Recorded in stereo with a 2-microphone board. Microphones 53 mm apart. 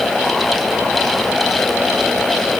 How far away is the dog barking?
I don't hear a dog barking.